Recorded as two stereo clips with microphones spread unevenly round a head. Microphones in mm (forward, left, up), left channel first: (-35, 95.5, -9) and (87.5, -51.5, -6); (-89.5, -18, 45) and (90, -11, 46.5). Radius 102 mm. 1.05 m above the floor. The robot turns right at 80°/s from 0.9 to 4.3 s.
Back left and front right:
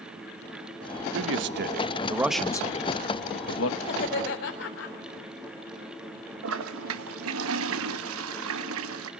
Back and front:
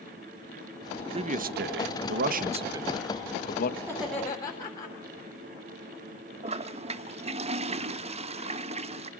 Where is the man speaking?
55° right, 1.3 m; by 3.7 s 150° left, 1.3 m.